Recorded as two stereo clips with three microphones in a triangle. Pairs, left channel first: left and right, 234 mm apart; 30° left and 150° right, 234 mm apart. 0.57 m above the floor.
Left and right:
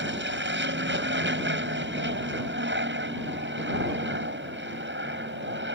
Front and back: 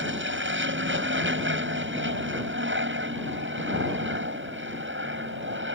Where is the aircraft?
120° right.